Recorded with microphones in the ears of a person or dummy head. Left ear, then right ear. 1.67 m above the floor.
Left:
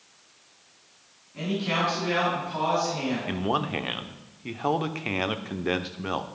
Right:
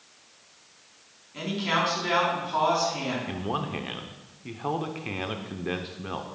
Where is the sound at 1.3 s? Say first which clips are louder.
Right 1 dB; 85° right, 4.5 m.